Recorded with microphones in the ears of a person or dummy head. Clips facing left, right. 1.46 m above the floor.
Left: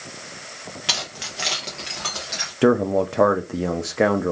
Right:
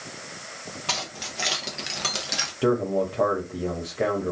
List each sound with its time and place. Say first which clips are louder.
0.9 s keys jangling: right 1 dB; 15° left (ahead or behind), 0.8 m; by 2.5 s 50° right (ahead or behind), 0.7 m
2.6 s a man speaking: left 5 dB; 65° left (ahead or behind), 0.6 m